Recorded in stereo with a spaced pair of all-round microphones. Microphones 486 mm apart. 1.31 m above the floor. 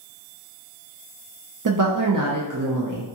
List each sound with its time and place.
1.6 s a woman speaking: 40° right (ahead or behind), 0.5 m